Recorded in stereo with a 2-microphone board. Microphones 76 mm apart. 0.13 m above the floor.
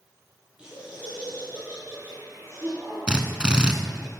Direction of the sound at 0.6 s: 15° right (ahead or behind).